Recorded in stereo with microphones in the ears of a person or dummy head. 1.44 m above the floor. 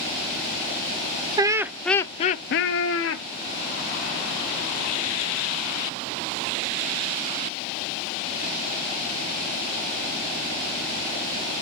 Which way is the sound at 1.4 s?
20° right (ahead or behind).